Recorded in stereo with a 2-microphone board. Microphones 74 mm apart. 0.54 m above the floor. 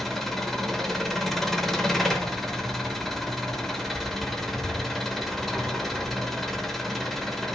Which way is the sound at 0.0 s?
5° left (ahead or behind).